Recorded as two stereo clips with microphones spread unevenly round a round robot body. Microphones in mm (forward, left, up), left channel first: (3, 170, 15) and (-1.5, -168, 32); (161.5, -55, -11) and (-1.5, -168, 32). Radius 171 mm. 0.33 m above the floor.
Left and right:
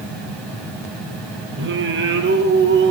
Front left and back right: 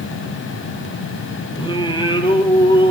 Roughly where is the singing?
Ahead right.